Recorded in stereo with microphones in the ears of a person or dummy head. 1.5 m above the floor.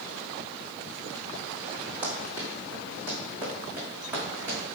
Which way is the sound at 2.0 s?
10° right (ahead or behind).